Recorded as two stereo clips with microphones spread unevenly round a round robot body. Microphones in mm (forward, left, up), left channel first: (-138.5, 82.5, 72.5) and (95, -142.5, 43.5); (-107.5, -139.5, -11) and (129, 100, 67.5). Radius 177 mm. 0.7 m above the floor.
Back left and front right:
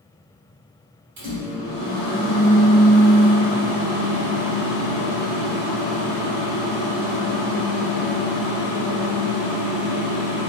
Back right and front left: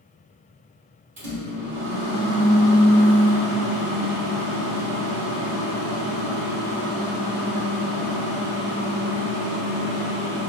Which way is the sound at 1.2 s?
15° right.